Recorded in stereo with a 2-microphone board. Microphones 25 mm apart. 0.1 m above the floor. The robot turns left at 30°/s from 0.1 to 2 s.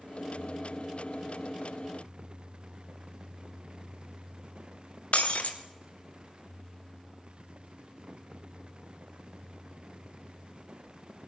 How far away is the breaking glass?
About 3 m.